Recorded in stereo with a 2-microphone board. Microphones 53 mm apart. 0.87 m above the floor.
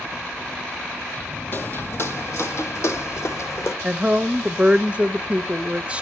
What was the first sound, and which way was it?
Footsteps, 40° left (ahead or behind).